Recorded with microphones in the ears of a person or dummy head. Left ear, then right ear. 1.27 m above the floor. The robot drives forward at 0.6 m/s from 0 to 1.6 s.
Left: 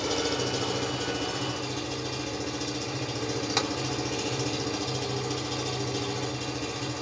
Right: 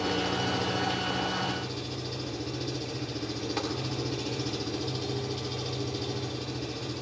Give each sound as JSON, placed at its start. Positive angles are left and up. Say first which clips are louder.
{"t": 0.0, "sound": "an engine running", "louder": "left 1 dB", "side_deg": 60, "distance_m": 1.9}
{"t": 3.6, "sound": "tapping", "louder": "left 5 dB", "side_deg": 35, "distance_m": 2.0}